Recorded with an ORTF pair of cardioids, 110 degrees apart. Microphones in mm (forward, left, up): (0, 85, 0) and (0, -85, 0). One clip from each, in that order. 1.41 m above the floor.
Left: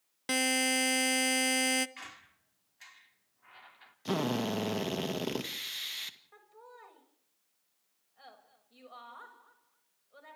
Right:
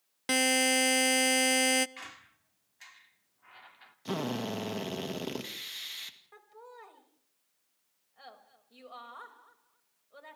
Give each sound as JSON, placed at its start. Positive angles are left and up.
{"t": 0.3, "sound": "a buzzer", "azimuth_deg": -10, "distance_m": 0.5}
{"t": 2.0, "sound": "a squeak", "azimuth_deg": -5, "distance_m": 2.0}
{"t": 4.0, "sound": "a drill", "azimuth_deg": 15, "distance_m": 2.0}
{"t": 6.3, "sound": "laughter", "azimuth_deg": -20, "distance_m": 6.0}